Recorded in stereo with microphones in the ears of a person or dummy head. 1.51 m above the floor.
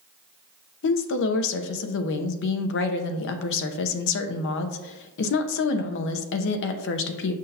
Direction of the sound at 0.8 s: 60° left (ahead or behind).